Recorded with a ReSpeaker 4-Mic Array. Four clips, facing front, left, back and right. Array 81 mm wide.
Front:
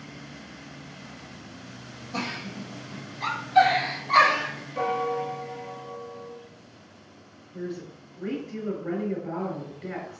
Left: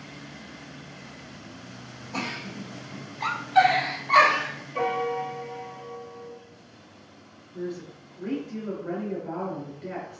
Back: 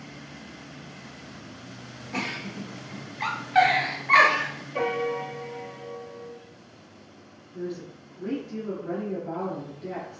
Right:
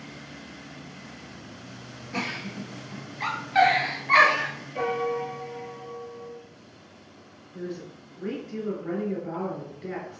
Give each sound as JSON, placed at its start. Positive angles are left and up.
{"t": 2.1, "sound": "a giggle", "azimuth_deg": -150, "distance_m": 1.5}
{"t": 4.8, "sound": "a piano", "azimuth_deg": 170, "distance_m": 0.6}
{"t": 7.5, "sound": "a woman speaking", "azimuth_deg": -25, "distance_m": 1.8}